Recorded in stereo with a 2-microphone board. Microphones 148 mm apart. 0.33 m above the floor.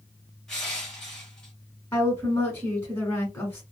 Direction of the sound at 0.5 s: 5° left (ahead or behind).